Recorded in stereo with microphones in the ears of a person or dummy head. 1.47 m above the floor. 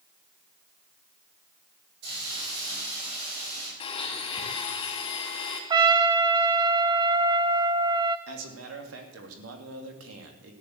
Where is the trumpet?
20° right (ahead or behind), 0.9 m.